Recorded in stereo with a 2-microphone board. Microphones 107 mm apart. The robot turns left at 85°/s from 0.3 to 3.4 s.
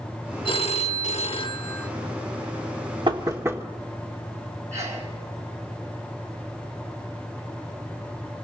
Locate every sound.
0.5 s a phone ringing: 135° left, 0.9 m; by 1.9 s 10° left, 0.9 m
3.1 s knocking: 45° right (ahead or behind), 1.5 m; by 3.6 s 25° right (ahead or behind), 1.5 m
4.7 s a sneeze: 80° right, 8 m